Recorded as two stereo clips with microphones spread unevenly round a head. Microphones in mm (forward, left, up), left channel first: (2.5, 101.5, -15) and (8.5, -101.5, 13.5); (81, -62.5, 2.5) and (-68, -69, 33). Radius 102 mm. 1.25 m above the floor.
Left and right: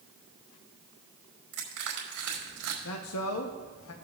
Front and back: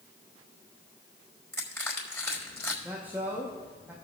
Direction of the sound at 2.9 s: 95° left.